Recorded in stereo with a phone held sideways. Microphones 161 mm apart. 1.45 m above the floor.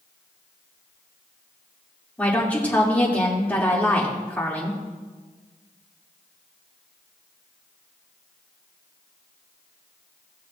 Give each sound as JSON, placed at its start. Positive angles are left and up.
{"t": 2.2, "sound": "a woman speaking", "side_deg": 10, "distance_m": 2.5}